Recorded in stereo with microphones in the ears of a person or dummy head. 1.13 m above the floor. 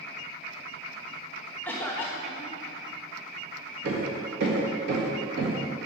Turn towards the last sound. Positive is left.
turn(degrees=-70)  # may be behind; listen again after turning